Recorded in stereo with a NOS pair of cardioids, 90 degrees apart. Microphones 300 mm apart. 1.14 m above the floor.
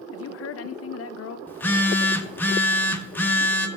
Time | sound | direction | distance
0.1 | a woman speaking | 50° left | 0.7 m
1.5 | a phone buzzing | 5° left | 0.7 m